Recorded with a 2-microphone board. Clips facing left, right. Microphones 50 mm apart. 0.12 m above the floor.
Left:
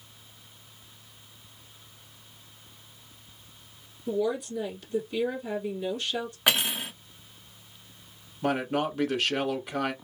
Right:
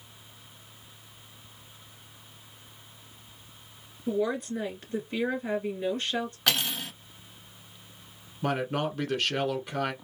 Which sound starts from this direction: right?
A woman speaking, at 4.1 s.